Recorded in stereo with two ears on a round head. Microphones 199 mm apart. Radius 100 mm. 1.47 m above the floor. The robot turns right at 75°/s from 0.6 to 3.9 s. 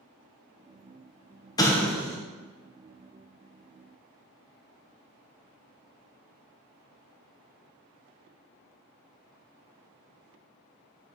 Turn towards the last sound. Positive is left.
turn(degrees=-30)